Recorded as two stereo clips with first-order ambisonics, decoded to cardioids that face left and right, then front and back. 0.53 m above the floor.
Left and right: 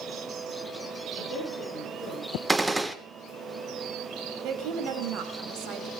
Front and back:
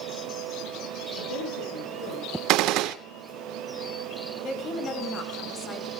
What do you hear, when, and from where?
1.2 s a woman speaking: 10° left, 8.5 m
2.5 s a gunshot: 175° right, 1.0 m
4.4 s a woman speaking: 60° right, 3 m